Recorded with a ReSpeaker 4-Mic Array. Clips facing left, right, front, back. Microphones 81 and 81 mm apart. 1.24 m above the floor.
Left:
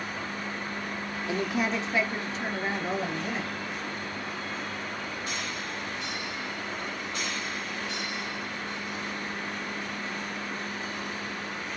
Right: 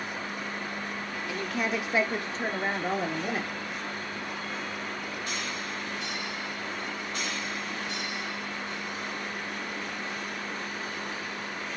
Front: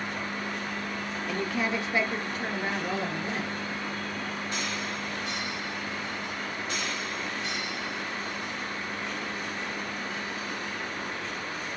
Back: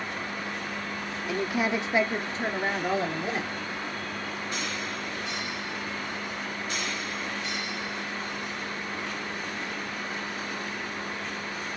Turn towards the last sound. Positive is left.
turn(degrees=-115)